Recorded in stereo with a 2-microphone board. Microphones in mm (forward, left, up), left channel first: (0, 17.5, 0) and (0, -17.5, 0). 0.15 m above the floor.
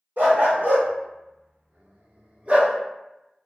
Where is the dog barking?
65° right (ahead or behind), 1.3 m; by 2.8 s 35° right (ahead or behind), 0.7 m.